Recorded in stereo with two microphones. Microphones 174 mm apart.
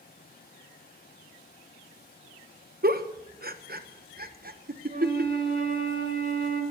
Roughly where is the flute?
Right.